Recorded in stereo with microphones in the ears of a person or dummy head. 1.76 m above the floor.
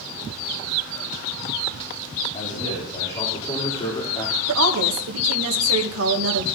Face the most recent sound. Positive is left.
turn(degrees=-80)